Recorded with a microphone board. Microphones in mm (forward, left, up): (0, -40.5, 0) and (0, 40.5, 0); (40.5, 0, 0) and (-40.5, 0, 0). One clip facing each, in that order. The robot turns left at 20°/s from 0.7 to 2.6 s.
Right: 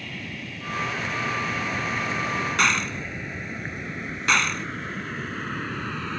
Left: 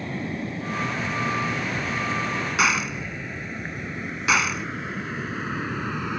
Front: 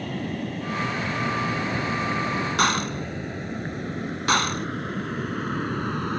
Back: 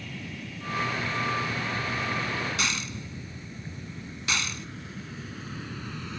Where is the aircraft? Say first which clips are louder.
Left 7 dB, front 10 dB; 35° left; by 6.2 s 15° left.